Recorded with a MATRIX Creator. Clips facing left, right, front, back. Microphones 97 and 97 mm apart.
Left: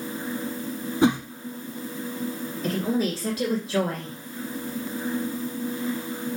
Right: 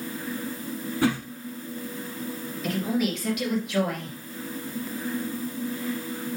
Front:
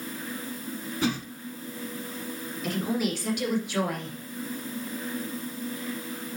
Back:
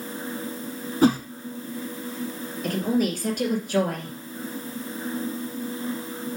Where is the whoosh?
150° left, 0.5 m.